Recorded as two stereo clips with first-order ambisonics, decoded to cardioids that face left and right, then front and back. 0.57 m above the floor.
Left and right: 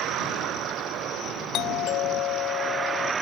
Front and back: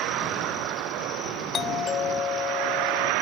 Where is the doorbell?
60° left.